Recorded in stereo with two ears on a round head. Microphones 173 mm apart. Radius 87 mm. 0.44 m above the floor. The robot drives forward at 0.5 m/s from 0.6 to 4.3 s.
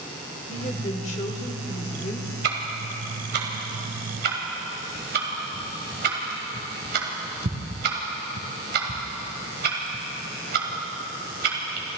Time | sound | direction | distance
0.5 | a woman speaking | 35° left (ahead or behind) | 1.7 m
2.4 | ticking | 65° right (ahead or behind) | 2.5 m